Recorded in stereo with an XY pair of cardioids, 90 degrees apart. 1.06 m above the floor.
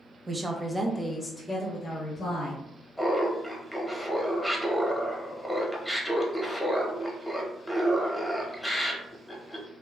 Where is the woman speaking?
25° right, 0.6 m; by 2.6 s 60° left, 1.1 m.